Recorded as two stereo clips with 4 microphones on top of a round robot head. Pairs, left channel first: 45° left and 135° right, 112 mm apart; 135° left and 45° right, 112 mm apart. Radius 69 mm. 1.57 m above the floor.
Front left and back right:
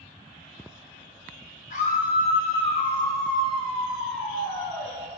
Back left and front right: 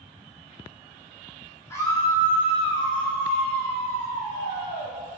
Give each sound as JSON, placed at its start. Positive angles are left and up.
{"t": 1.7, "sound": "a scream", "azimuth_deg": 70, "distance_m": 3.5}